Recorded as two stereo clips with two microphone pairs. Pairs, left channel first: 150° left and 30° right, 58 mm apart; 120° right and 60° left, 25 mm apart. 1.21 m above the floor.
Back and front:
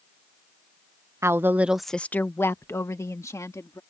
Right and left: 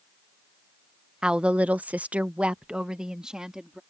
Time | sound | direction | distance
1.2 | a woman speaking | straight ahead | ?